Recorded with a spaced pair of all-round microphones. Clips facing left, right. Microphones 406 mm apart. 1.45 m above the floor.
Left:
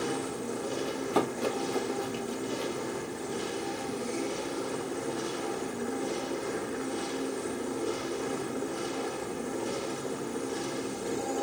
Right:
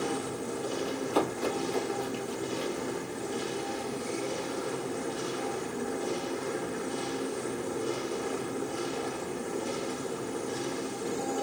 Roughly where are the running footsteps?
Left.